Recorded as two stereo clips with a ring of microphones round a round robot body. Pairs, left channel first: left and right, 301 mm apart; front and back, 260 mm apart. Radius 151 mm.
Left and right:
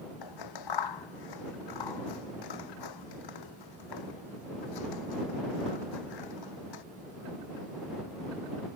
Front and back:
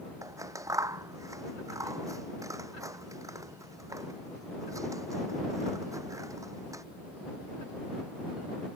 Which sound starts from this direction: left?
Scissors, at 0.2 s.